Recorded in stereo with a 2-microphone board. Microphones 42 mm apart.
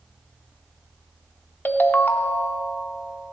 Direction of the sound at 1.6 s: 55° left (ahead or behind).